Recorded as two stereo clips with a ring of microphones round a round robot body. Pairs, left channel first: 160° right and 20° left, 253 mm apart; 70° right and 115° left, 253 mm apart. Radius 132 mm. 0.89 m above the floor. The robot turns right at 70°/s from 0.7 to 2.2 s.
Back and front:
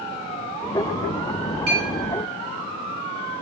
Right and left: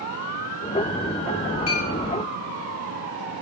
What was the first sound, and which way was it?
A clink, 35° right.